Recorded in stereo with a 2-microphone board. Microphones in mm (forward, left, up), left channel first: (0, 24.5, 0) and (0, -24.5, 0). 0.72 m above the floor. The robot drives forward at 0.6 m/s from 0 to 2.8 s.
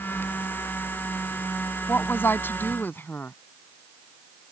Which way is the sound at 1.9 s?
45° left (ahead or behind).